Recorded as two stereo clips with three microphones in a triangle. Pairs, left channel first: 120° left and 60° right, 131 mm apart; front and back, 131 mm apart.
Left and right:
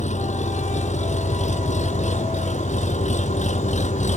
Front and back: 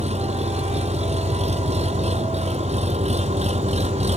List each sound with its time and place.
0.0 s an engine running: 145° left